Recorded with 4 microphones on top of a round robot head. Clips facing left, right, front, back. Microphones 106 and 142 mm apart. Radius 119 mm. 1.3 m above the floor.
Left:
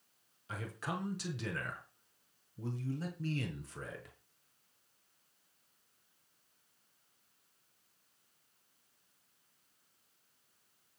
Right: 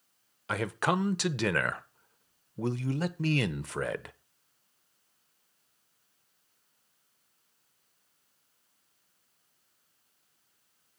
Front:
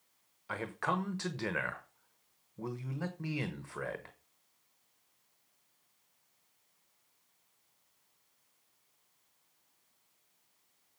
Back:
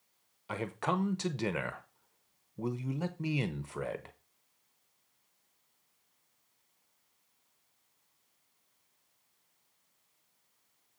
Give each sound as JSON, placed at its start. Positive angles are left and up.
{"t": 0.5, "sound": "a man speaking", "azimuth_deg": -110, "distance_m": 0.8}